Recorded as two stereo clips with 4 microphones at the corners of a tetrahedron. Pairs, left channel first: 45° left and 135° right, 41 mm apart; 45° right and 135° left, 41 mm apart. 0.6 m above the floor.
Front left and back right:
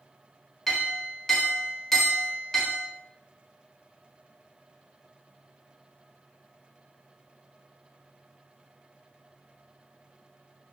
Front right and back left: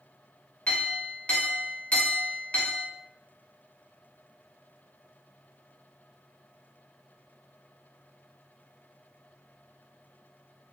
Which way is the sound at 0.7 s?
30° right.